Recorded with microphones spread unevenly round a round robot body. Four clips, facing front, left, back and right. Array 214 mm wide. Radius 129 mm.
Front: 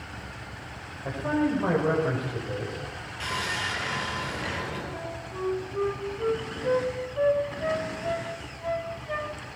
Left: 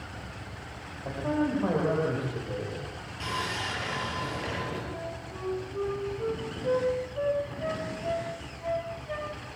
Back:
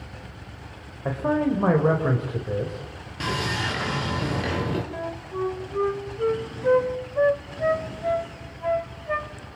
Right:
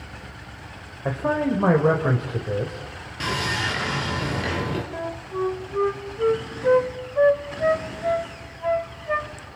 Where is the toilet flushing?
I don't hear a toilet flushing.